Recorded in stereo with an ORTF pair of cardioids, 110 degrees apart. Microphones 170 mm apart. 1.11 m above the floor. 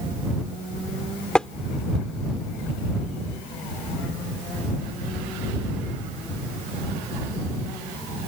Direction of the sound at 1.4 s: 5° left.